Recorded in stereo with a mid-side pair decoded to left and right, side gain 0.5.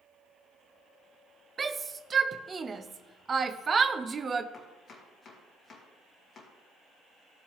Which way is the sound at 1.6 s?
35° right.